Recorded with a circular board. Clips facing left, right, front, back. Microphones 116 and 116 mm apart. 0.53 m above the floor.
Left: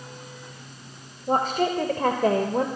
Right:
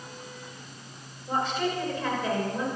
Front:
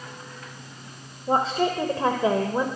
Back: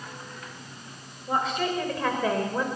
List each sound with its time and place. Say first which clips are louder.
1.3 s a woman speaking: left 5 dB, front 4 dB; 50° left, 2.5 m; by 2.7 s 70° left, 2.0 m